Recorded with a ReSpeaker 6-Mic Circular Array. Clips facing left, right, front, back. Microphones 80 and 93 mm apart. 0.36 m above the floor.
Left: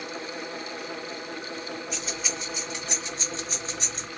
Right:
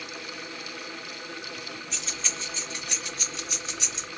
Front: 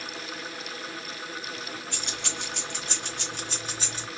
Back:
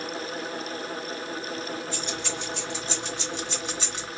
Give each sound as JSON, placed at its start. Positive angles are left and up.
{"t": 1.9, "sound": "keys jangling", "azimuth_deg": 5, "distance_m": 2.0}